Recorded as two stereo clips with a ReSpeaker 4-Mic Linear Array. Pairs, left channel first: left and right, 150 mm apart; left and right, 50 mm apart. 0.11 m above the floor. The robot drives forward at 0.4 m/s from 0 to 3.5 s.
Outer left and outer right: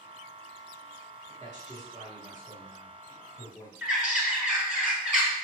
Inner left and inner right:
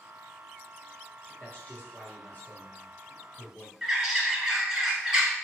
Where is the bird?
5° right (ahead or behind), 1.1 m.